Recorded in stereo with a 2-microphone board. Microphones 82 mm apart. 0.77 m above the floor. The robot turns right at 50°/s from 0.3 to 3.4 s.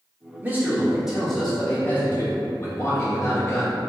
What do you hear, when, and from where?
0.4 s a man speaking: 40° right, 1.0 m; by 3.8 s 110° left, 1.0 m